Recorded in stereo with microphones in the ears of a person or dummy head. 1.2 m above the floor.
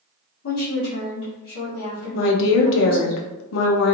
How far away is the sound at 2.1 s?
About 0.6 m.